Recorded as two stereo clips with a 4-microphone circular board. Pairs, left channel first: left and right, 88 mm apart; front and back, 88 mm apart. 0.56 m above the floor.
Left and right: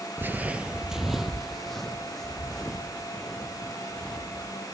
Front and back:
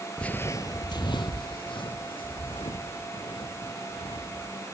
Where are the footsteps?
70° right, 0.5 m; by 4.5 s 10° left, 4 m.